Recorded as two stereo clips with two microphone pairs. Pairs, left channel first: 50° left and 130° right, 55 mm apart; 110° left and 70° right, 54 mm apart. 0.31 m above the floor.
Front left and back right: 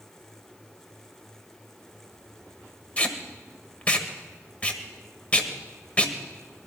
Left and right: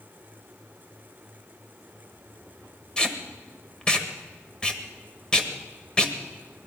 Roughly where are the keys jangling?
I don't hear keys jangling.